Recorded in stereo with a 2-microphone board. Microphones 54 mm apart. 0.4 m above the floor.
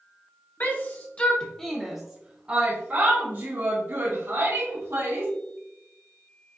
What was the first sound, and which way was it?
A shout, 40° left (ahead or behind).